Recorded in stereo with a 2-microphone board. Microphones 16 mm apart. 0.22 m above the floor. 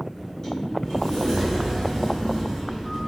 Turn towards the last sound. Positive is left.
turn(degrees=30)  # may be behind; listen again after turning